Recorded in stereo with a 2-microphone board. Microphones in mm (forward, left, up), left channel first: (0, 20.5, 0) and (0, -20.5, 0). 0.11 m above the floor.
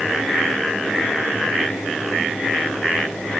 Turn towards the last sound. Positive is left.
No sound to turn to.